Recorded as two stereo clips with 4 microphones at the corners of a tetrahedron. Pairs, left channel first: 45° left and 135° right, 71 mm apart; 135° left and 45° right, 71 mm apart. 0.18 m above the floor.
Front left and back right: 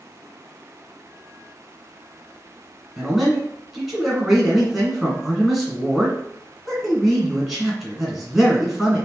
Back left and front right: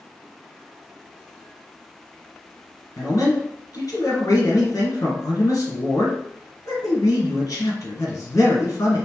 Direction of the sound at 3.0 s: 140° left.